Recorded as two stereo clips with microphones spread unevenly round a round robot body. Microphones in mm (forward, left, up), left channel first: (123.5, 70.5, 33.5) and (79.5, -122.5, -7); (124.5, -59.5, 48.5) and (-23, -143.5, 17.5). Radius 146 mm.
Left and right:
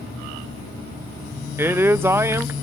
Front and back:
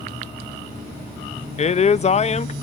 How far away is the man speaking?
About 0.6 m.